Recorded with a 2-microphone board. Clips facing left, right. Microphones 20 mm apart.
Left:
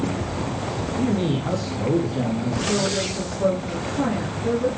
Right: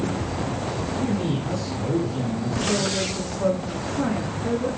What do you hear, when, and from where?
1.0 s a man speaking: 40° left (ahead or behind), 4.5 m
2.7 s a woman speaking: 5° right (ahead or behind), 9 m